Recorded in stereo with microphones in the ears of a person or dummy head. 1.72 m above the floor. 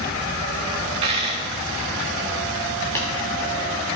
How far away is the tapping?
About 2.5 m.